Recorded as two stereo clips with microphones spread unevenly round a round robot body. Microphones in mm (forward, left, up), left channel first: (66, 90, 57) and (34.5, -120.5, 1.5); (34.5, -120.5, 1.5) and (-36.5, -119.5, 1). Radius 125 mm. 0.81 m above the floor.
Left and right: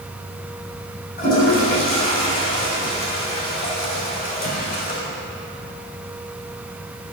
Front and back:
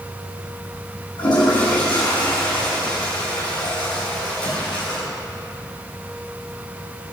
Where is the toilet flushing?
30° left, 7 m.